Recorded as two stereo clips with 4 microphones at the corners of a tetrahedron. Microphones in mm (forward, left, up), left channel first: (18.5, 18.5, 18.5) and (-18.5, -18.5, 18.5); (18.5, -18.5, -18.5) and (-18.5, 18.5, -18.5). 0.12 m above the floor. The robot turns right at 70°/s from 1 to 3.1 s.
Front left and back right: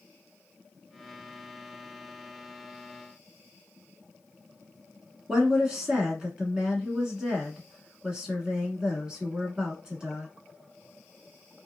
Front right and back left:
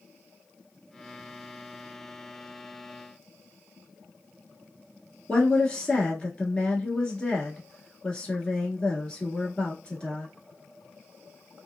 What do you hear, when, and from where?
5.3 s a woman speaking: 80° right, 1.1 m